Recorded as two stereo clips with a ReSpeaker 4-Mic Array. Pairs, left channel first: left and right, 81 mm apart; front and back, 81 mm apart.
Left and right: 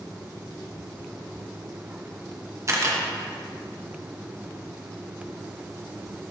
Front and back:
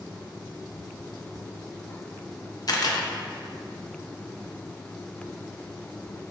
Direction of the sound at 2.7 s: 40° right.